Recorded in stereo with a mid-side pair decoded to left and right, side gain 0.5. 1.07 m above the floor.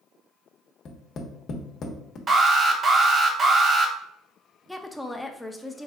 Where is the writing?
No writing in this recording.